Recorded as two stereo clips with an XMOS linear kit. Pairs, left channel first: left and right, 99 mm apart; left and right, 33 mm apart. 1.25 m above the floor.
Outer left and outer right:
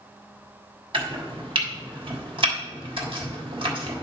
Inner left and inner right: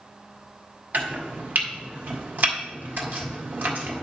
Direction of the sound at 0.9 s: 65° right (ahead or behind).